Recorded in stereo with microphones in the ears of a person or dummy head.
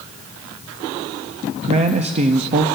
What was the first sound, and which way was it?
A man speaking, 30° right (ahead or behind).